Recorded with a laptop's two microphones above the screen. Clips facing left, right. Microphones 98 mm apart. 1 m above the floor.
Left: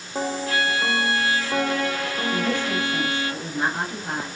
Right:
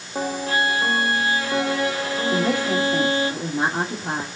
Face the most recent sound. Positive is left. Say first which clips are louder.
# right 4 dB
turn(degrees=-30)  # may be behind; listen again after turning